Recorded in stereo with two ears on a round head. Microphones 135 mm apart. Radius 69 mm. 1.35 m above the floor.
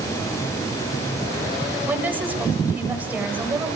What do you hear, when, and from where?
1.9 s a woman speaking: 10° right (ahead or behind), 7.5 m